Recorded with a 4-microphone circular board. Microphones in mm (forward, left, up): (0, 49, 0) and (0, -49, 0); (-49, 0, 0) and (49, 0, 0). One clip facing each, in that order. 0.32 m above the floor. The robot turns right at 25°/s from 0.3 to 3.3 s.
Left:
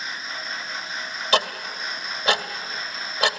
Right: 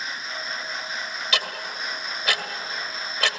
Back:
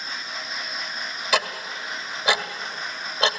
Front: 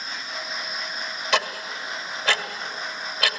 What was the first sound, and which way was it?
Ticking, 100° left.